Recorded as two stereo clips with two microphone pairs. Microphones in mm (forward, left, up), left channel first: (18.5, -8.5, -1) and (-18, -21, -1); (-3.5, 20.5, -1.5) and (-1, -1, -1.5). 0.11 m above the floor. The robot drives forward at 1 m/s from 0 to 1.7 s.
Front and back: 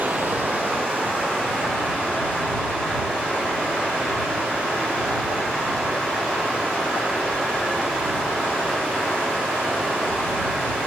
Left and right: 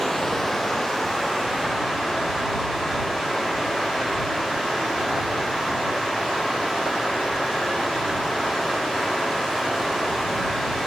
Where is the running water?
170° left, 0.8 m; by 10.9 s 175° left, 2.5 m.